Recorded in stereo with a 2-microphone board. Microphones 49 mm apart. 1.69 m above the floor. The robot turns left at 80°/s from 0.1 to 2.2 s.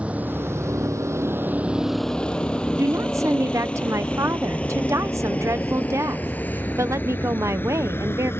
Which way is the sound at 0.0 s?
25° right (ahead or behind).